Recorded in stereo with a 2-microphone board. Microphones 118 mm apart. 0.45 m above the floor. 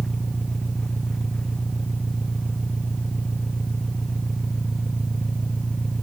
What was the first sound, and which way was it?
An engine running, 5° left (ahead or behind).